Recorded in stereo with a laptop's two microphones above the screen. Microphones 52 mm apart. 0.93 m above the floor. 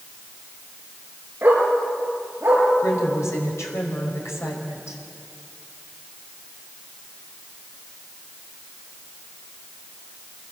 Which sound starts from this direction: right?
A dog barking, at 1.4 s.